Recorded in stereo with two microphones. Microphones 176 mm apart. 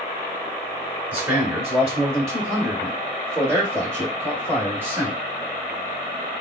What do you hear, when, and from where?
1.1 s a man speaking: 15° right (ahead or behind), 1.6 m; by 5.2 s 10° right (ahead or behind), 2.5 m